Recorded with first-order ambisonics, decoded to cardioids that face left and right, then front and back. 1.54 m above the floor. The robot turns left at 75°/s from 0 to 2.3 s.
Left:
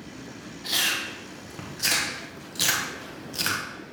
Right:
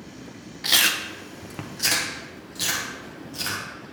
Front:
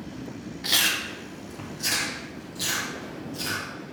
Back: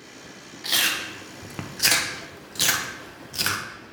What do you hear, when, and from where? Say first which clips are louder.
0.6 s chewing: right 5 dB, even; 80° right, 0.7 m; by 3.6 s 155° left, 0.7 m